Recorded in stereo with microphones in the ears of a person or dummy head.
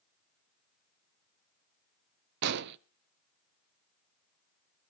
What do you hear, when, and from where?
2.4 s an explosion: 60° right (ahead or behind), 0.6 m